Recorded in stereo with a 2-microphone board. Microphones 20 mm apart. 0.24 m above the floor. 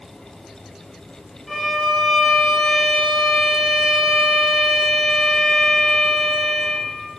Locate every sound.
1.5 s a violin: 15° left (ahead or behind), 3 m